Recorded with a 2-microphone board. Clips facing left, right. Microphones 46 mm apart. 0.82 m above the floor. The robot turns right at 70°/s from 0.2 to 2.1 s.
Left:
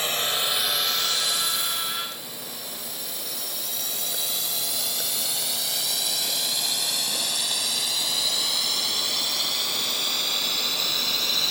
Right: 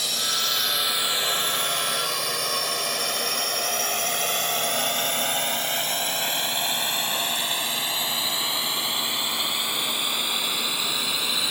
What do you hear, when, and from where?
0.0 s a drone: 30° left (ahead or behind); by 11.5 s 15° right (ahead or behind)